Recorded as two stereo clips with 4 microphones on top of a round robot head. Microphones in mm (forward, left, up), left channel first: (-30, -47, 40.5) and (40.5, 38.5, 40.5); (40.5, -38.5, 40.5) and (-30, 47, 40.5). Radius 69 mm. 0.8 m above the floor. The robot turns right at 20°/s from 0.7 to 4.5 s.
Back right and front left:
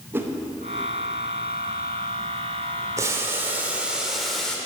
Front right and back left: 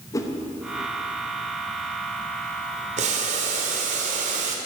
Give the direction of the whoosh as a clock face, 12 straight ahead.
12 o'clock.